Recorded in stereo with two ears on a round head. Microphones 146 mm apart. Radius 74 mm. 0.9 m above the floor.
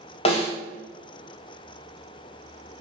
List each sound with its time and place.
0.2 s a snare drum: 35° left (ahead or behind), 0.7 m